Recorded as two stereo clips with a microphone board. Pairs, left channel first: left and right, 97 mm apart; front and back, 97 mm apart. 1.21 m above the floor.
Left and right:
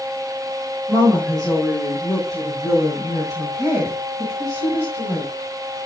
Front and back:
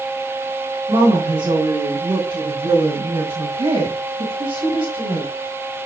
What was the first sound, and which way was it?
A woman speaking, straight behind.